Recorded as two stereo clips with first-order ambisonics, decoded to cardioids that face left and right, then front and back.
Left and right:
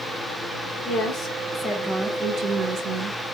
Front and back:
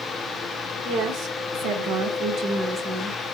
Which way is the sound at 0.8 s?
140° left.